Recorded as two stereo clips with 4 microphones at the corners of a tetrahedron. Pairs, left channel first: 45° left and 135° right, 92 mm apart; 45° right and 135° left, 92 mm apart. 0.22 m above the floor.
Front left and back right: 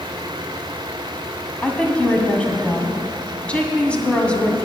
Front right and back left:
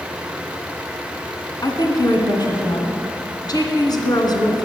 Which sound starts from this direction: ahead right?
A woman speaking, at 1.6 s.